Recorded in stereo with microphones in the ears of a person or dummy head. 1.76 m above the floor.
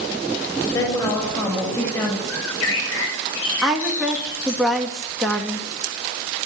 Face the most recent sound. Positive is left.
turn(degrees=0)  # may be behind; listen again after turning